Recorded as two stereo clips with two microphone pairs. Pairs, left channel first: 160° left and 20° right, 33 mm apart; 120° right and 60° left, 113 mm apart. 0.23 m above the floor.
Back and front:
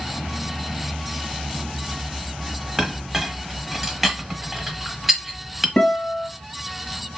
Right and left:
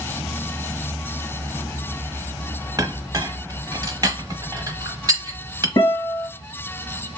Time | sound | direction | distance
2.8 | a clink | 60° left | 0.8 m
5.8 | a guitar | 160° right | 1.6 m